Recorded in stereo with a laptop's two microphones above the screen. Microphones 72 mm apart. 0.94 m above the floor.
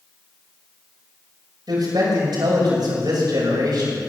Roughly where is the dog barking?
I don't hear a dog barking.